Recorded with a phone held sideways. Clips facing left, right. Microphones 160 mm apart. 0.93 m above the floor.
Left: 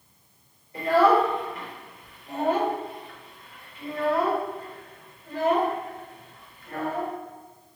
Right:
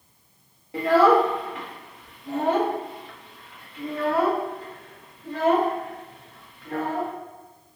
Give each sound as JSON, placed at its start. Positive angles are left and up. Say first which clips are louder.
{"t": 0.7, "sound": "a child speaking", "louder": "right 2 dB", "side_deg": -85, "distance_m": 0.8}